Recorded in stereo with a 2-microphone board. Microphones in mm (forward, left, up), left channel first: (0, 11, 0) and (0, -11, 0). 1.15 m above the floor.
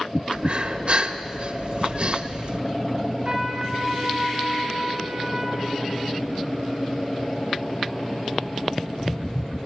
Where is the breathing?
55° right (ahead or behind), 1.5 m.